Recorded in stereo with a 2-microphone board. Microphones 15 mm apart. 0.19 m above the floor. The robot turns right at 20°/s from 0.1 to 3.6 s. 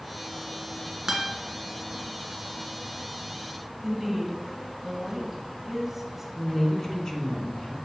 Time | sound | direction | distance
1.1 | a guitar | 35° right (ahead or behind) | 1.2 m
3.8 | a woman speaking | 25° right (ahead or behind) | 1.1 m
6.3 | a woman speaking | 45° left (ahead or behind) | 1.5 m